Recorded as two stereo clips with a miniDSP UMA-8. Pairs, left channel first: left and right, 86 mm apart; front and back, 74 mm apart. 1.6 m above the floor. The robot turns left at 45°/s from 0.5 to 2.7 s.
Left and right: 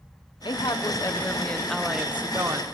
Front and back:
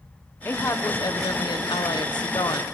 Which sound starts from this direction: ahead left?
A woman speaking, at 0.5 s.